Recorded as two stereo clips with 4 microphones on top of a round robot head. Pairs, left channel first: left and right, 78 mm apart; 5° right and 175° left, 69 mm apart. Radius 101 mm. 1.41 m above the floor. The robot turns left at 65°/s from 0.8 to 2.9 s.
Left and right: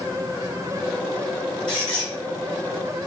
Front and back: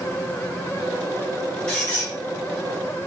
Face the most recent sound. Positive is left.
turn(degrees=-10)